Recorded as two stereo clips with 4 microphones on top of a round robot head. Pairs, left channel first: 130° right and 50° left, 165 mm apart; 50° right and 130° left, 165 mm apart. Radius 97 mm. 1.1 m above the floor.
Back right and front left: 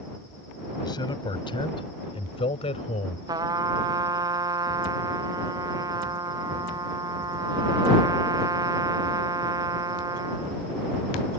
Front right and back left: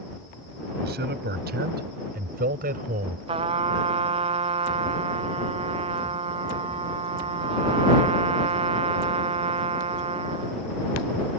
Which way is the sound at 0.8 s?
160° left.